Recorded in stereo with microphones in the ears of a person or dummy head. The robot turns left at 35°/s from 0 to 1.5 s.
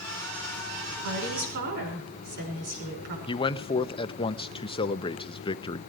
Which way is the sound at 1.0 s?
70° right (ahead or behind).